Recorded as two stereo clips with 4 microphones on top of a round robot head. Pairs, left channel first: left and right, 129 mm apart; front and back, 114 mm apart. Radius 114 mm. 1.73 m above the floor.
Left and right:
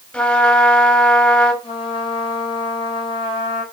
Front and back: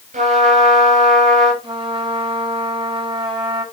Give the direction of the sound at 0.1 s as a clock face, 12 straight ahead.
6 o'clock.